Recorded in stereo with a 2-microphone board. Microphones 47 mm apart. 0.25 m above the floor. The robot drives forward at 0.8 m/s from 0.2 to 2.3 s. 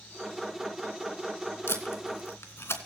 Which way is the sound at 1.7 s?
60° left (ahead or behind).